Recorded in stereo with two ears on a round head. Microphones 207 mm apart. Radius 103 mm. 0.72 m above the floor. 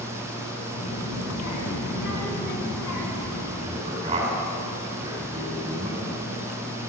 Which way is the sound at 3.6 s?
25° right (ahead or behind).